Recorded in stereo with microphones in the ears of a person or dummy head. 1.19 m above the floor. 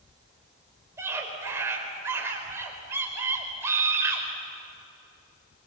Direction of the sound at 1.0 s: 20° right (ahead or behind).